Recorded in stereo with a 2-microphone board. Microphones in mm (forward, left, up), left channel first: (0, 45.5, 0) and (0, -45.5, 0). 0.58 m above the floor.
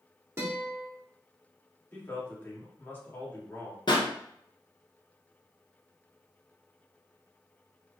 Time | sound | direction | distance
0.4 | a guitar | 30° right (ahead or behind) | 1.6 m
1.9 | a man speaking | 20° left (ahead or behind) | 1.7 m
3.9 | a pop | 55° left (ahead or behind) | 1.2 m